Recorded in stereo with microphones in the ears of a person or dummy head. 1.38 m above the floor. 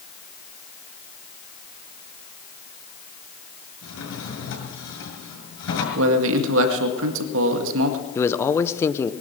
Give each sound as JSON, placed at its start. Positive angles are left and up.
{"t": 3.8, "sound": "a drawer", "side_deg": 80, "distance_m": 6.5}
{"t": 6.0, "sound": "a man speaking", "side_deg": -75, "distance_m": 1.9}
{"t": 8.2, "sound": "a man speaking", "side_deg": 15, "distance_m": 0.9}